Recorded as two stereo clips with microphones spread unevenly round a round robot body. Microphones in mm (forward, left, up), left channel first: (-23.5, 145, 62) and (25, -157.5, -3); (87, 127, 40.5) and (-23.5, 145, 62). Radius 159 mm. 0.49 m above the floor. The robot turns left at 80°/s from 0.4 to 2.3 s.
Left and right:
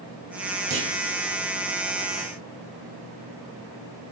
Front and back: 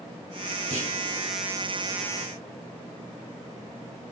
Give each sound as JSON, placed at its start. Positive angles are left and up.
{"t": 0.7, "sound": "a clunk", "azimuth_deg": -140, "distance_m": 3.0}